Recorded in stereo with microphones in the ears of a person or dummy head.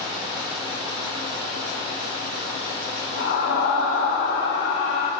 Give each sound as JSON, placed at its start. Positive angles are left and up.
{"t": 0.0, "sound": "running water", "side_deg": -25, "distance_m": 1.6}
{"t": 3.2, "sound": "a scream", "side_deg": 70, "distance_m": 2.5}